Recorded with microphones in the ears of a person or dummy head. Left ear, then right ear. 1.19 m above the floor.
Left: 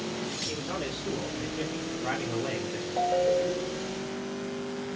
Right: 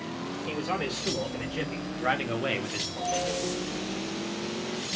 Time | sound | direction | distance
0.5 | a man speaking | 70° right (ahead or behind) | 1.7 m
3.0 | a ringtone | 35° left (ahead or behind) | 1.5 m